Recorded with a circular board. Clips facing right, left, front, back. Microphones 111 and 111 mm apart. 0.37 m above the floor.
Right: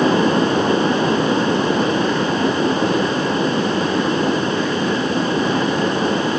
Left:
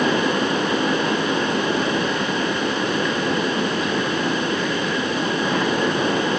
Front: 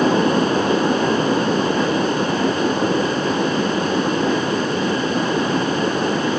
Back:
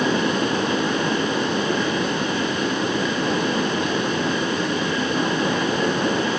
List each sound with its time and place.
Only background noise.